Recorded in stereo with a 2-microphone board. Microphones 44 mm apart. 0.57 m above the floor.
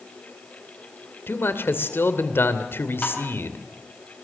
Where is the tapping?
35° left (ahead or behind), 6 m.